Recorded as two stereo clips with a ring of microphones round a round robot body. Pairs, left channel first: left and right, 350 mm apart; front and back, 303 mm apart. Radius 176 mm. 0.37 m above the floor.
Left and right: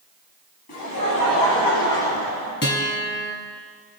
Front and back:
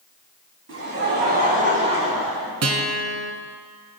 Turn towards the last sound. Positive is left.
turn(degrees=150)